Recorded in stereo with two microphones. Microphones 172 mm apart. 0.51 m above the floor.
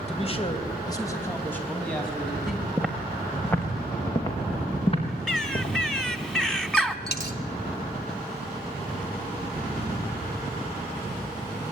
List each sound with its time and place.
0.1 s a man speaking: 40° left (ahead or behind), 3 m; by 2.7 s centre (ahead or behind), 5.5 m
2.8 s footsteps: 5° right (ahead or behind), 3 m; by 6.3 s 45° left (ahead or behind), 6.5 m
5.3 s a bird: 5° left (ahead or behind), 1.1 m
7.1 s a dropped coin: 70° left (ahead or behind), 1.2 m